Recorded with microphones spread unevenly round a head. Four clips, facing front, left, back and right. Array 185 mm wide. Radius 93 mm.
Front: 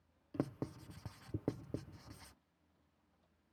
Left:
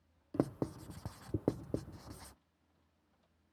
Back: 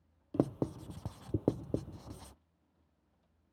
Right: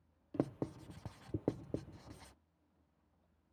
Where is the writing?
165° left.